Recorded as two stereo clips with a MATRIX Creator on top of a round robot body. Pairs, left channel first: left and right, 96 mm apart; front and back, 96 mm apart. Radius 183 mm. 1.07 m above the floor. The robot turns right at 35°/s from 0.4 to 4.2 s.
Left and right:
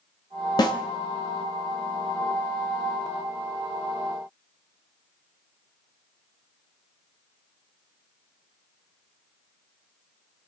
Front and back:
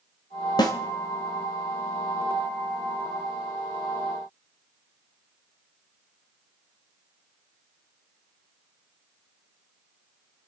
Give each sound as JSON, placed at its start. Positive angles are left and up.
{"t": 0.6, "sound": "a snare drum", "azimuth_deg": 45, "distance_m": 1.1}